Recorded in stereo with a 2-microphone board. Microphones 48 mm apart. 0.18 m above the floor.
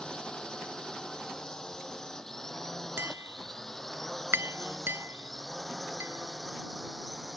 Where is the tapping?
60° right (ahead or behind).